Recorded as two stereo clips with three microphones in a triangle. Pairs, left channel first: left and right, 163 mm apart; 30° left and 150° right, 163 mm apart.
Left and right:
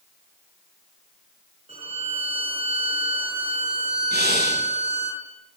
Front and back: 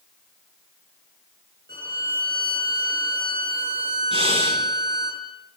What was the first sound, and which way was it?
A violin, 140° right.